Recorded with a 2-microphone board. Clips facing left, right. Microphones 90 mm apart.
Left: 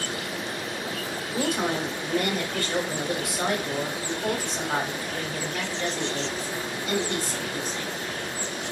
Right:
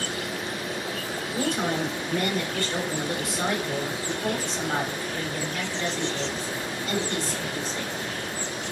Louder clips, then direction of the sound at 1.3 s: Even; 15° left (ahead or behind).